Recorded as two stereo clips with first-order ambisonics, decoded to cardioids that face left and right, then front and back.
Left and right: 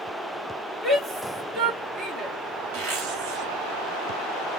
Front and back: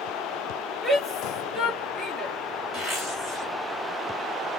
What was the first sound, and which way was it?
A shout, 55° right.